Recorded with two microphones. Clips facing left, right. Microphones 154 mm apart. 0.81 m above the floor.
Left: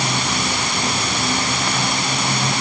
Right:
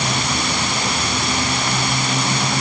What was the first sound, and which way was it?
Only background noise.